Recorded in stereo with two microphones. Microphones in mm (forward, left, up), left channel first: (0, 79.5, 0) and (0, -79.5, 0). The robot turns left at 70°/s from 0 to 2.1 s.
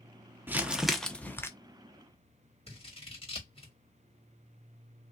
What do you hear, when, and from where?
0.5 s crumpling: 15° right (ahead or behind), 0.5 m; by 1.5 s 15° left (ahead or behind), 0.5 m
2.7 s scissors: 35° left (ahead or behind), 1.8 m